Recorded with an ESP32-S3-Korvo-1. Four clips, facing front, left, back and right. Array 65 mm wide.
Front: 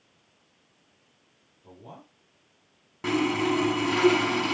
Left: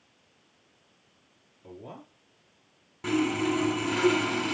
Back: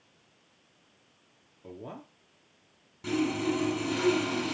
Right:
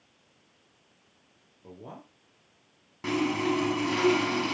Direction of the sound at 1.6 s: 160° right.